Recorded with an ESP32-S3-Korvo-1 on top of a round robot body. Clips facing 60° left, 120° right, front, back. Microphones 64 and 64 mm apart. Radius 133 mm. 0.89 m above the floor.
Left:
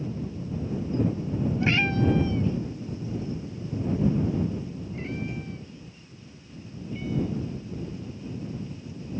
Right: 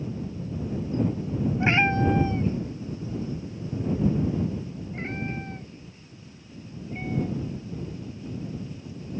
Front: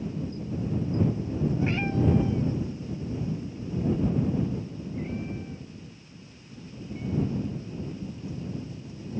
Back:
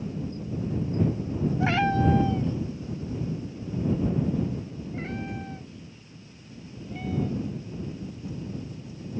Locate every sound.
1.6 s a cat meowing: 175° left; by 7.7 s 170° right